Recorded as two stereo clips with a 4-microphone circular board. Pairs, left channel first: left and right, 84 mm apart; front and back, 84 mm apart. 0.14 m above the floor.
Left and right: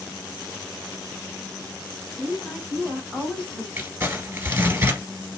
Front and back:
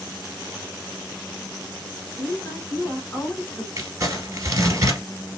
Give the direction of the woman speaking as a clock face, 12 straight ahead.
12 o'clock.